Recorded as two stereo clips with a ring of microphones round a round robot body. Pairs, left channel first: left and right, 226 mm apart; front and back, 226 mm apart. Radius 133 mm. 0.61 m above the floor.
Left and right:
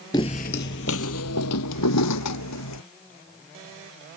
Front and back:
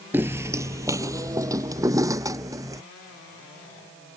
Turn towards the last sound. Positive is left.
turn(degrees=105)